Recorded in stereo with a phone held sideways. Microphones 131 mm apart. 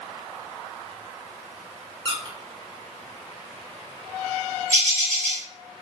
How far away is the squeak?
About 0.7 m.